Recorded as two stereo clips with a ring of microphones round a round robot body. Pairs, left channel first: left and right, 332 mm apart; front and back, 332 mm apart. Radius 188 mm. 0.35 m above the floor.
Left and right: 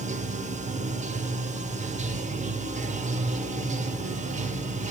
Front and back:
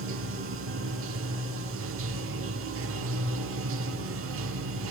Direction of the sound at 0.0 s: 150° right.